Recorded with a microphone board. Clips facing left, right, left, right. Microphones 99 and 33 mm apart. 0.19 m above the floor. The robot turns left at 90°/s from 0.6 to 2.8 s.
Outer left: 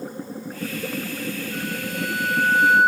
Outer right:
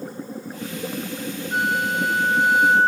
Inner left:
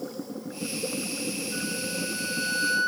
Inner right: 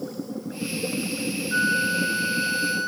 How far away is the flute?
About 0.6 m.